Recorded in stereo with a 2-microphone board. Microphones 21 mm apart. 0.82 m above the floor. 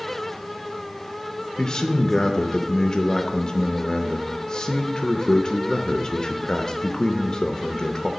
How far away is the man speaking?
About 0.5 m.